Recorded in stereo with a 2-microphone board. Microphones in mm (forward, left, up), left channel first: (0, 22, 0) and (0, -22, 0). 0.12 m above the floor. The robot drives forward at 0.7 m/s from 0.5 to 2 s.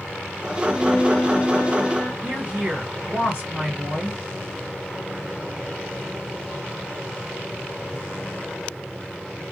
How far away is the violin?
About 1.5 m.